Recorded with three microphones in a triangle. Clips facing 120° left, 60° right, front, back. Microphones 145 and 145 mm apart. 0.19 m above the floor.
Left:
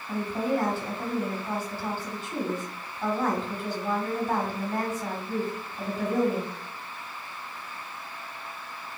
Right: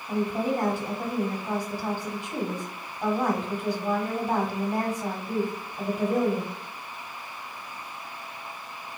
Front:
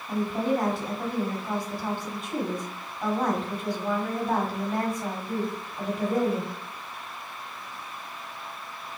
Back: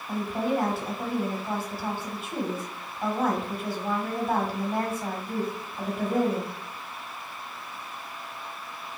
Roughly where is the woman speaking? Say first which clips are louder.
Right 1 dB, front 1 dB; right.